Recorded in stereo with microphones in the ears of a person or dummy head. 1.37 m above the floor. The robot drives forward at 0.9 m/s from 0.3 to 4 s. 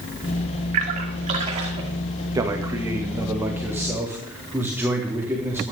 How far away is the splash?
About 1.9 m.